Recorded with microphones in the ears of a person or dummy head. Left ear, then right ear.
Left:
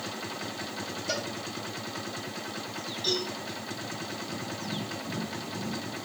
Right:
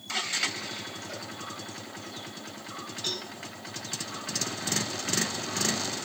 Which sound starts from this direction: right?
A cowbell, at 3.0 s.